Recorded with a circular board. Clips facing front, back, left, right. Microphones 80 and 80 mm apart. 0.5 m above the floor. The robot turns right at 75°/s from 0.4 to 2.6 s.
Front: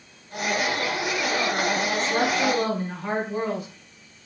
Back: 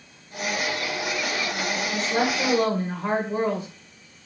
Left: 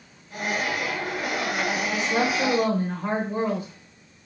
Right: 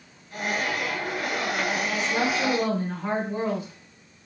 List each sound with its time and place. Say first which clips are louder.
1.9 s a woman speaking: front 1 dB, left 3 dB; 80° left, 0.7 m; by 3.7 s 135° left, 0.7 m